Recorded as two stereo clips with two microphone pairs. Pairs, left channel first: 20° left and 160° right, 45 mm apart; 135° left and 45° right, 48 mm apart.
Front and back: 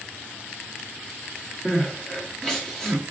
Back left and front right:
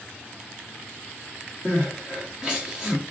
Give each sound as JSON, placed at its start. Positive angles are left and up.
{"t": 1.6, "sound": "crying", "azimuth_deg": -20, "distance_m": 1.1}